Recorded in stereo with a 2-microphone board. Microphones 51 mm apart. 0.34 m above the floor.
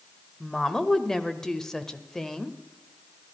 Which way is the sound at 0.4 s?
10° left (ahead or behind).